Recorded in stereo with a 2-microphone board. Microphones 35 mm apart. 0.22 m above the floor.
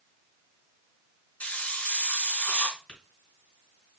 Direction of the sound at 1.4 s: 45° left (ahead or behind).